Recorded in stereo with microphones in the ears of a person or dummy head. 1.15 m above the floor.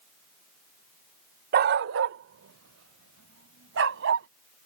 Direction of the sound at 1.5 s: 40° right (ahead or behind).